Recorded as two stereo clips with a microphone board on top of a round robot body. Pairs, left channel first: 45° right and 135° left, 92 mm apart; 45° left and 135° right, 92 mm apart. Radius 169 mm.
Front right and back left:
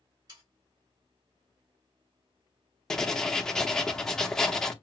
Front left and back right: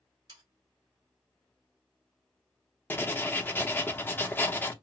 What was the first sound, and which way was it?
Sawing, straight behind.